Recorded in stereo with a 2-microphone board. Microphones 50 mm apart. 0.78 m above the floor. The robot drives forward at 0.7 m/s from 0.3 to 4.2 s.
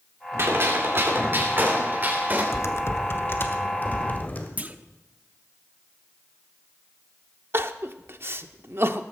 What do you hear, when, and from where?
0.4 s a gunshot: 55° right (ahead or behind), 2.5 m; by 2.4 s 35° right (ahead or behind), 3.5 m
2.5 s typing on a keyboard: 70° left (ahead or behind), 1.0 m; by 4.5 s 35° left (ahead or behind), 1.8 m
4.6 s a clunk: 30° right (ahead or behind), 0.7 m
7.5 s crying: 50° right (ahead or behind), 0.6 m